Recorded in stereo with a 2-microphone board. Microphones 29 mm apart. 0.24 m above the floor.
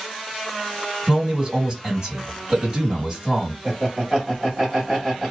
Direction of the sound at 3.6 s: 10° right (ahead or behind).